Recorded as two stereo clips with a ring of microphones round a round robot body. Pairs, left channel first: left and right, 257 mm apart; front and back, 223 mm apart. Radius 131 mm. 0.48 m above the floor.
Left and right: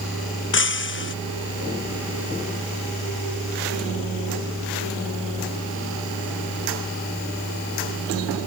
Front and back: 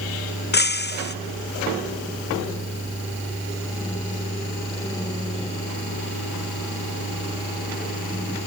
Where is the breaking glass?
45° left.